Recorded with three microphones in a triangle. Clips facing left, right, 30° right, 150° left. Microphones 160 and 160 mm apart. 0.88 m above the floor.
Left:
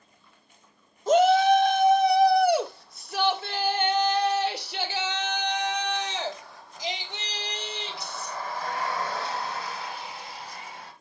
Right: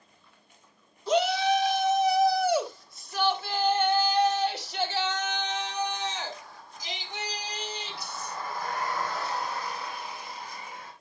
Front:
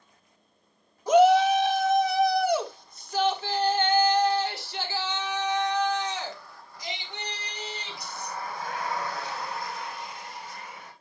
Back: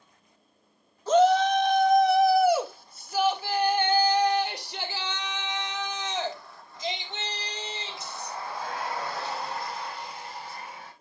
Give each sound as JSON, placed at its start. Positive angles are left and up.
{"t": 1.1, "sound": "a shout", "azimuth_deg": 45, "distance_m": 1.5}